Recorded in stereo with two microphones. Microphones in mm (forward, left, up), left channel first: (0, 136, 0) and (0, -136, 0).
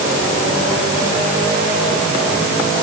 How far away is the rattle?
I don't hear a rattle.